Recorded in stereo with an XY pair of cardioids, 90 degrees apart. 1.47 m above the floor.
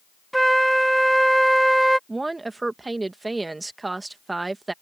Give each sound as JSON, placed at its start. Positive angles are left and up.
{"t": 0.3, "sound": "a flute", "azimuth_deg": -10}
{"t": 2.1, "sound": "a woman speaking", "azimuth_deg": -25}